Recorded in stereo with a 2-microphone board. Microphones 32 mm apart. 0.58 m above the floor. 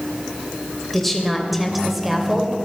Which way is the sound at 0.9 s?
5° left (ahead or behind).